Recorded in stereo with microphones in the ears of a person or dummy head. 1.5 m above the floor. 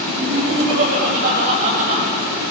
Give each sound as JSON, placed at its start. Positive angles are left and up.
{"t": 0.1, "sound": "laughter", "side_deg": -55, "distance_m": 3.0}